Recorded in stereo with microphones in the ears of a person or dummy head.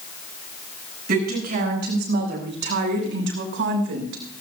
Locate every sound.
1.1 s a woman speaking: 60° right (ahead or behind), 7.5 m; by 4.4 s 85° right, 6 m